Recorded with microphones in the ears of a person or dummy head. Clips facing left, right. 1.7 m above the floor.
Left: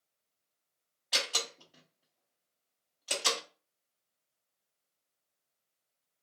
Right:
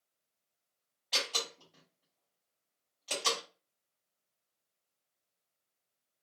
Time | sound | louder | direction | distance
1.1 | a door slam | left 1 dB | 10° left (ahead or behind) | 0.8 m